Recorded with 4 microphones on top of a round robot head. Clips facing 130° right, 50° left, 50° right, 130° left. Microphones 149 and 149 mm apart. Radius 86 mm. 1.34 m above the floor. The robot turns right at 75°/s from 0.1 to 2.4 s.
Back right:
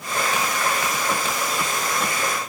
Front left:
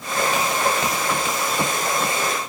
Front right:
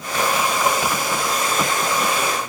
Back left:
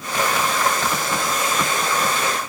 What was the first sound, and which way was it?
Only background noise.